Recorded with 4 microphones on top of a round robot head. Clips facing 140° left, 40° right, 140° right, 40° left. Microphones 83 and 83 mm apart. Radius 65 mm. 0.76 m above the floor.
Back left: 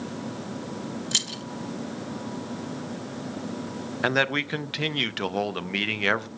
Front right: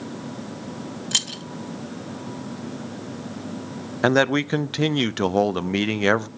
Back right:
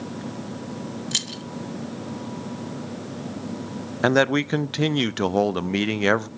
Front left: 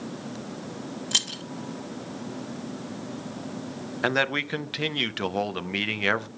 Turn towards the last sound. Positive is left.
turn(degrees=-90)